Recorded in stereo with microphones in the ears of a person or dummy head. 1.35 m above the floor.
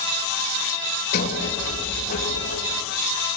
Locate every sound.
1.1 s a sliding door: 50° left (ahead or behind), 3 m